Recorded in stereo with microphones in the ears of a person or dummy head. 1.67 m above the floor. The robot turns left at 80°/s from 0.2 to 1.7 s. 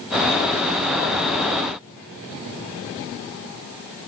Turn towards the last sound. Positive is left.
No sound to turn to.